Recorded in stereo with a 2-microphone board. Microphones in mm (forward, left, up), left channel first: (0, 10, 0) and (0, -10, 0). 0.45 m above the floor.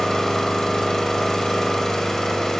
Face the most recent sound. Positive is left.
turn(degrees=20)  # may be behind; listen again after turning